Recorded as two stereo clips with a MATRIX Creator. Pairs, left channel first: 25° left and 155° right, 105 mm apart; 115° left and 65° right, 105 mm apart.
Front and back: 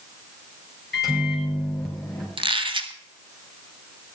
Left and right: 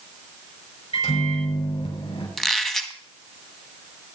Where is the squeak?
160° right, 1.2 m.